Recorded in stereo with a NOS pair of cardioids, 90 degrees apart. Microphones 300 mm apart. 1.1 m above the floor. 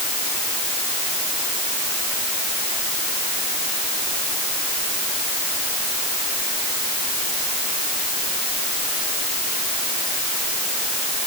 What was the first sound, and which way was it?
Only background noise.